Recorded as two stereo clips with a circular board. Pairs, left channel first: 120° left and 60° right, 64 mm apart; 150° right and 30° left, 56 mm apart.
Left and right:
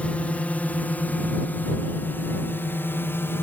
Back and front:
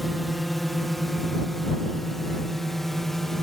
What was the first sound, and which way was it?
A drone, 120° left.